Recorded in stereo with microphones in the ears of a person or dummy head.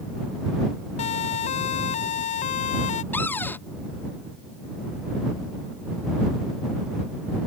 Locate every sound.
1.0 s a siren: 40° left (ahead or behind); by 3.0 s 45° left (ahead or behind)
3.1 s a cupboard door: 15° left (ahead or behind)